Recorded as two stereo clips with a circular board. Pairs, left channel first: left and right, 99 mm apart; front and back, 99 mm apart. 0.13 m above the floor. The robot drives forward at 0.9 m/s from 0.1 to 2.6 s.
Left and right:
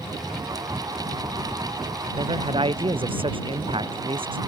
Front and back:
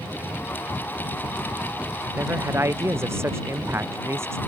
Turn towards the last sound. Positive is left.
turn(degrees=-115)